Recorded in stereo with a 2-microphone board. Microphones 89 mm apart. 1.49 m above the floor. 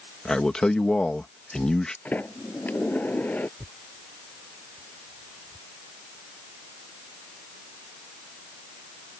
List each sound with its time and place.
0.2 s a man speaking: 10° left (ahead or behind)
2.0 s a sliding door: 20° left (ahead or behind)
3.6 s tearing paper: 60° right (ahead or behind)